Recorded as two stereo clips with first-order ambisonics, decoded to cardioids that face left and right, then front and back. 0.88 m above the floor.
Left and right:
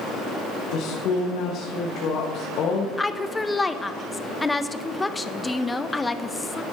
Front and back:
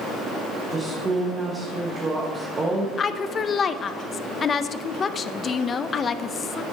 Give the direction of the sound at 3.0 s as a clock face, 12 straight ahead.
11 o'clock.